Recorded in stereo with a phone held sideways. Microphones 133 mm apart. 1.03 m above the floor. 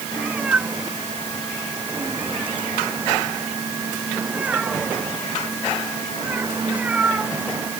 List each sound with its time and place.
0.2 s a cat meowing: 10° right (ahead or behind)